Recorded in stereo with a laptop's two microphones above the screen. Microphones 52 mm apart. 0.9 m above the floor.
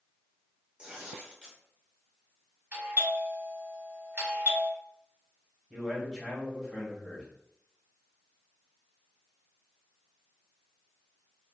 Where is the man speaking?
Centre (ahead or behind), 0.9 m.